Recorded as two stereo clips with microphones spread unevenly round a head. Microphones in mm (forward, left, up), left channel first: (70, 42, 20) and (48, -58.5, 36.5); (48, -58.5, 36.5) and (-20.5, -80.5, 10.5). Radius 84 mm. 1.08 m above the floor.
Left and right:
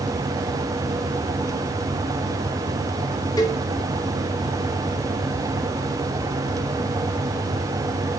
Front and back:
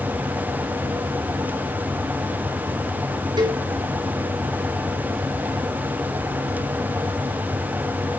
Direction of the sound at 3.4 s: 145° left.